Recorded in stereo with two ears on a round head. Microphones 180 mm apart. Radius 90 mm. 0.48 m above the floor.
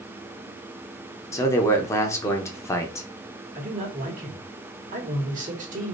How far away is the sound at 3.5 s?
About 2 m.